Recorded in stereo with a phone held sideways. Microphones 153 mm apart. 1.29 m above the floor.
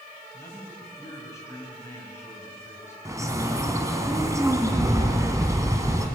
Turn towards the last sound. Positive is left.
turn(degrees=-20)  # may be behind; listen again after turning